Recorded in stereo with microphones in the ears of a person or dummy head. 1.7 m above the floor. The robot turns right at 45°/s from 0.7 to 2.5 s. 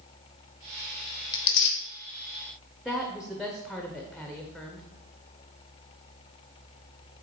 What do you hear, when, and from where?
1.3 s tearing paper: 20° left (ahead or behind), 1.1 m; by 1.8 s 40° left (ahead or behind), 1.1 m
2.9 s a woman speaking: centre (ahead or behind), 0.7 m